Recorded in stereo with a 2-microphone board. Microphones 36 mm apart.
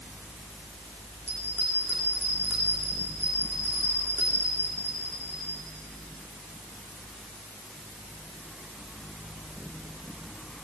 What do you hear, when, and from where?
1.3 s a bell: 65° right (ahead or behind), 7.5 m